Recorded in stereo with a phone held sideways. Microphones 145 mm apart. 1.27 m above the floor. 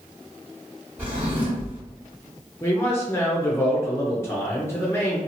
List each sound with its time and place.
1.0 s a drawer: 15° right (ahead or behind), 1.4 m
2.6 s a man speaking: 20° left (ahead or behind), 0.6 m